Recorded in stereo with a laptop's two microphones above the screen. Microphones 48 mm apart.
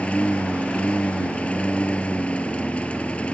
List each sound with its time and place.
0.0 s a lawn mower: 25° left (ahead or behind)